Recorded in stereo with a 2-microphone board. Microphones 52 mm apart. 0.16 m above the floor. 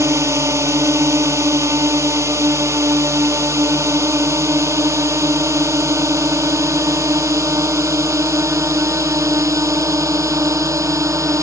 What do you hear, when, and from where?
0.0 s a drone: 70° right (ahead or behind); by 11.4 s 75° right (ahead or behind)